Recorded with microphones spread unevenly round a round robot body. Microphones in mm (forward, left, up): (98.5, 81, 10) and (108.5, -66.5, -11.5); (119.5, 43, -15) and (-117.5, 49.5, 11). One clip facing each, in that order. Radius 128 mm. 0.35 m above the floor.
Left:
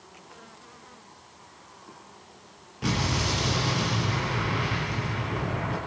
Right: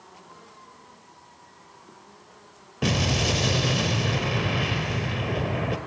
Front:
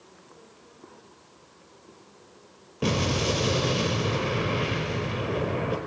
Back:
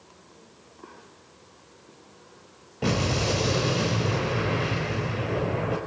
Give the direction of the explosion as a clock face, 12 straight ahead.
3 o'clock.